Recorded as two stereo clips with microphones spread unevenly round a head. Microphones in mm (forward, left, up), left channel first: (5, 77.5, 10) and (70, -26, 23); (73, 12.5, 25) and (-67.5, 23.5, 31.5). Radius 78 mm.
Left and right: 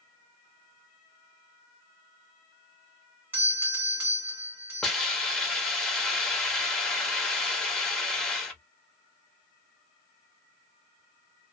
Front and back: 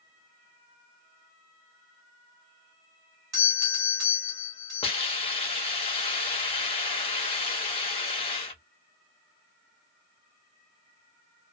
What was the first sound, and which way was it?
A doorbell, 130° right.